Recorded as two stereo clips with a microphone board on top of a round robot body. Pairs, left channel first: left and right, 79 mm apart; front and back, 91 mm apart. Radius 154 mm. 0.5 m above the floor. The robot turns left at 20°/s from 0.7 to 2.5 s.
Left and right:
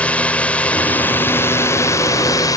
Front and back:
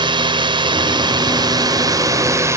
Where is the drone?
160° left; by 2.6 s 125° left.